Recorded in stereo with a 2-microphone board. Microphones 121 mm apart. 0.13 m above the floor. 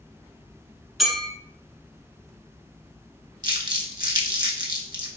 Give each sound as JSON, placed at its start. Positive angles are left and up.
{"t": 1.0, "sound": "a clink", "side_deg": 0, "distance_m": 1.0}
{"t": 3.4, "sound": "crumpling", "side_deg": -40, "distance_m": 0.6}